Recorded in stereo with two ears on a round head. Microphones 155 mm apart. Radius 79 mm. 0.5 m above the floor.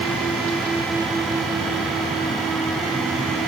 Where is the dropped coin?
No dropped coin in this recording.